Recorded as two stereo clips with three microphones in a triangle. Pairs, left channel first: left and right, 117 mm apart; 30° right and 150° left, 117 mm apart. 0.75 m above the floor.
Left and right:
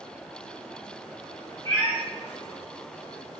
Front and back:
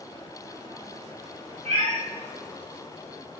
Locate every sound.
1.6 s a cat meowing: 150° left, 0.9 m